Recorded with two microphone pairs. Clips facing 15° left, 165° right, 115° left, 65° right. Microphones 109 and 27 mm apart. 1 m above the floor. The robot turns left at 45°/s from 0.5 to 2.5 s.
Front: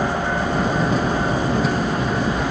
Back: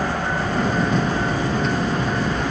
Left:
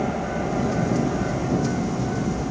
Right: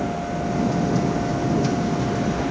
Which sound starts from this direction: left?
An aircraft, at 0.0 s.